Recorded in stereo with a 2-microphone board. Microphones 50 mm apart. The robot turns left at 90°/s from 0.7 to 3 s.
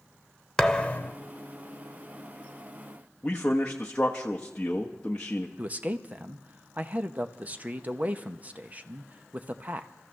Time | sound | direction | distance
0.6 | a thud | 160° left | 0.7 m
3.2 | a man speaking | 20° left (ahead or behind) | 1.1 m
5.6 | a man speaking | 30° right (ahead or behind) | 0.8 m